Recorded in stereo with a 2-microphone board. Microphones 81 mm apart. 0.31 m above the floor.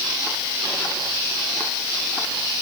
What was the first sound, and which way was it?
Only background noise.